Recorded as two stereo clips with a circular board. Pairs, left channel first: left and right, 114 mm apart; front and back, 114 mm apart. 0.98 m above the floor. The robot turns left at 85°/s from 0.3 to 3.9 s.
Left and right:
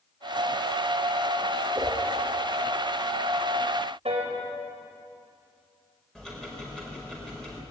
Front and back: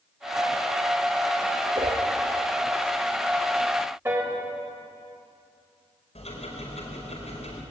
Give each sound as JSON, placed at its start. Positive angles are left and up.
{"t": 1.8, "sound": "a whoosh", "azimuth_deg": -135, "distance_m": 2.5}
{"t": 4.0, "sound": "a piano", "azimuth_deg": -115, "distance_m": 4.5}
{"t": 6.2, "sound": "ticking", "azimuth_deg": 5, "distance_m": 5.0}